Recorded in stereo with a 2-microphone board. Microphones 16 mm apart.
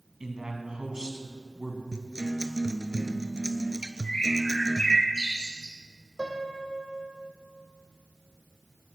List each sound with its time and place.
0.2 s a man speaking: 55° right (ahead or behind), 2.5 m
1.9 s a guitar: 55° right (ahead or behind), 0.8 m
4.0 s a bird: 55° left (ahead or behind), 2.5 m
6.2 s a piano: 60° right (ahead or behind), 2 m